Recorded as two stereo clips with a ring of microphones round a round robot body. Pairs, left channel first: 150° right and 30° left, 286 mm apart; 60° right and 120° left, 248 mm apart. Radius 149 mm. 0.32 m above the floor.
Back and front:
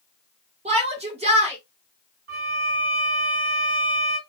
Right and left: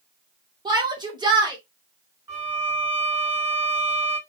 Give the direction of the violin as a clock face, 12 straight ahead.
10 o'clock.